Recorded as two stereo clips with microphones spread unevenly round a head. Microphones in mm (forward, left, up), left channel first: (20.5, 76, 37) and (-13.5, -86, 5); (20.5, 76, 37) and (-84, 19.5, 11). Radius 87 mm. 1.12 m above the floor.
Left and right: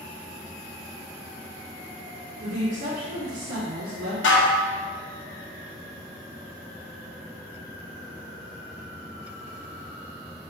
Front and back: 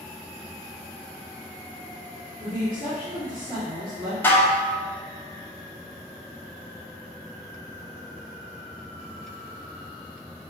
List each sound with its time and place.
2.4 s a woman speaking: 65° right, 1.8 m; by 4.1 s 85° right, 2.5 m
4.2 s dishes clattering: 100° left, 1.0 m